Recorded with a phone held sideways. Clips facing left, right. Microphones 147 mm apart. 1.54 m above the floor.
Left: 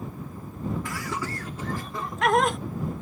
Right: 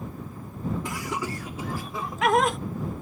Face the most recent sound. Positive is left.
turn(degrees=0)  # may be behind; listen again after turning